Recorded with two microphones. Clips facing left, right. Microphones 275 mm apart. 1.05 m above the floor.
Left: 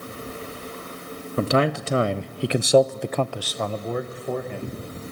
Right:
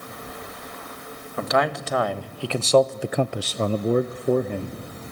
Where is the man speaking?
35° left (ahead or behind), 1.3 m; by 4.8 s 45° right (ahead or behind), 1.2 m.